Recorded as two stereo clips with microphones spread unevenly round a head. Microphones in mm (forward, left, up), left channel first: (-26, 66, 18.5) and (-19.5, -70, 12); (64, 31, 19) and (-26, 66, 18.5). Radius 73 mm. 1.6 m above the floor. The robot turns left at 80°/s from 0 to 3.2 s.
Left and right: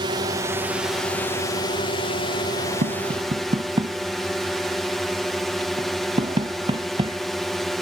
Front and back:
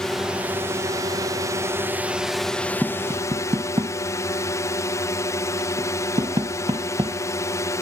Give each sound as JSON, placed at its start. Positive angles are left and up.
{"t": 0.0, "sound": "a drone", "azimuth_deg": -100}
{"t": 2.8, "sound": "tapping", "azimuth_deg": -110}